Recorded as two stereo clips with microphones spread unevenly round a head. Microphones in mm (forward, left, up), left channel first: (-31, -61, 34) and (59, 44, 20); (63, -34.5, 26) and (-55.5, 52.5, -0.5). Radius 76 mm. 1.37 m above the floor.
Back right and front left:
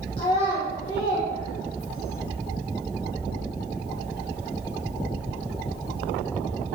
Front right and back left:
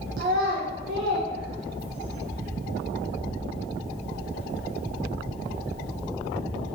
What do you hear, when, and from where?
0.2 s a child speaking: 175° left, 0.7 m